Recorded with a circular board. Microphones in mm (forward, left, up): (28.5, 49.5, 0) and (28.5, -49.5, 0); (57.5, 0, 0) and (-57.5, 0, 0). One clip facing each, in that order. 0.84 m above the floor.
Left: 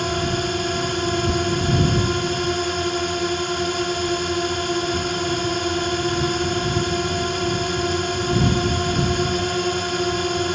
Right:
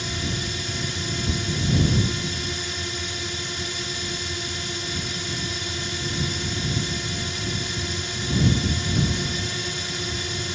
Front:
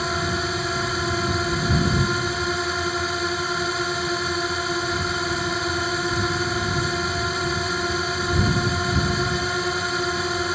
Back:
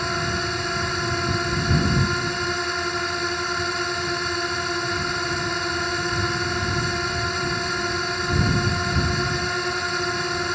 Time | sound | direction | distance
0.0 | a drone | 85° left | ?